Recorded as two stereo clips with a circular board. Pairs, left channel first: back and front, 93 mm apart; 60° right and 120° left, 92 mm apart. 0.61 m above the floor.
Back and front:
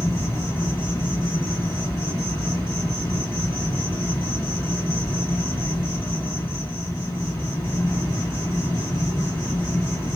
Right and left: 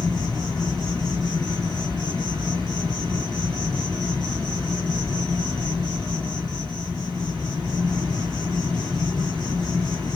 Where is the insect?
135° right, 2 m.